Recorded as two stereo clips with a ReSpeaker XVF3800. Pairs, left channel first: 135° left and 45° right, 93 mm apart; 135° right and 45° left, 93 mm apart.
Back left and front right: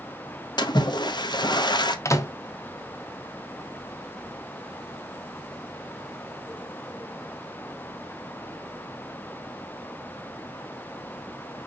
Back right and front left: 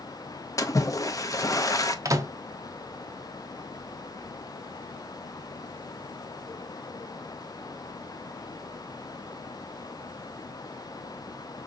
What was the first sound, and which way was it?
A splash, 175° left.